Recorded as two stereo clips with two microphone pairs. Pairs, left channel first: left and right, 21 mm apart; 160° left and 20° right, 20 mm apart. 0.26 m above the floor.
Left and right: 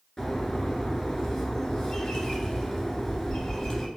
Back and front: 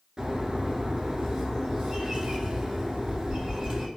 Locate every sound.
0.2 s a bird: 25° left, 0.8 m